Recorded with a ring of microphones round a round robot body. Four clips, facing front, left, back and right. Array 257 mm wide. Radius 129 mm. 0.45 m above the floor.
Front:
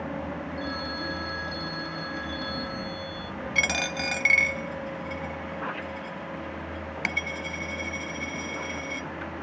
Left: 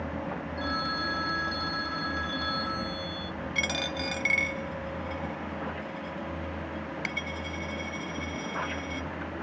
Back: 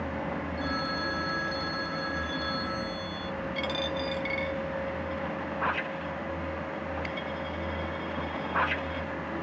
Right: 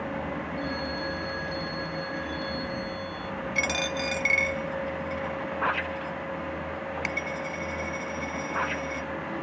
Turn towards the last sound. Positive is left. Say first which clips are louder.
# right 3 dB, front 3 dB
turn(degrees=-5)